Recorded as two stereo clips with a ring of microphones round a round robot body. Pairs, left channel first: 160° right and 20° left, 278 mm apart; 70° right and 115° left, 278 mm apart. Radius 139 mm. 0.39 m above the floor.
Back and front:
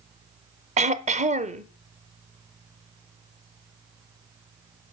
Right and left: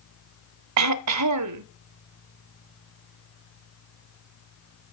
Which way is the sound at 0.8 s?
90° left.